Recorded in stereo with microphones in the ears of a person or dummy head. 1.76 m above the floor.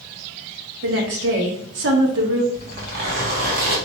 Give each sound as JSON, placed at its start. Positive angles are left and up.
{"t": 0.8, "sound": "a woman speaking", "side_deg": -60, "distance_m": 1.0}
{"t": 2.5, "sound": "a zipper", "side_deg": -45, "distance_m": 1.2}